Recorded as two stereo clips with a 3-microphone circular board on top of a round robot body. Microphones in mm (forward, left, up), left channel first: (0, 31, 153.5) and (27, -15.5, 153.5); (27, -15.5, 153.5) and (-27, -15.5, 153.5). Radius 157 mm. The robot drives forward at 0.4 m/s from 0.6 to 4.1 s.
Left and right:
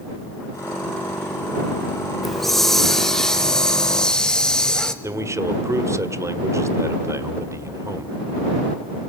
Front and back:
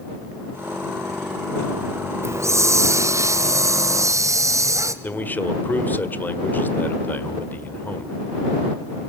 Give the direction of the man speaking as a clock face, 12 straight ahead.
2 o'clock.